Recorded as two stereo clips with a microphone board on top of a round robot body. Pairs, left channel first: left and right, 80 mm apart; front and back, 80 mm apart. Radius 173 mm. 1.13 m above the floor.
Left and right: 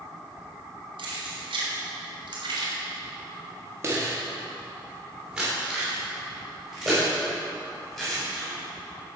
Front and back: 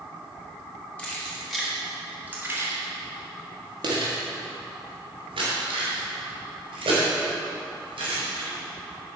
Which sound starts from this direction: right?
Keys jangling, at 1.0 s.